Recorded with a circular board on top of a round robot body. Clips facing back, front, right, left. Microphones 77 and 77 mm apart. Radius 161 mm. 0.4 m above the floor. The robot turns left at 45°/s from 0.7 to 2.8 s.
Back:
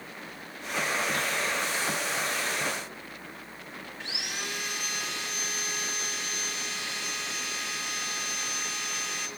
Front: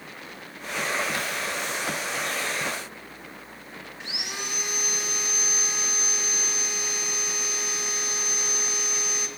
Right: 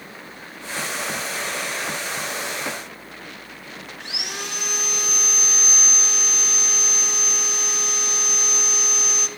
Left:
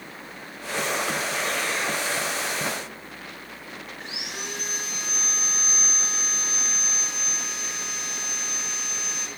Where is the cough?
No cough in this recording.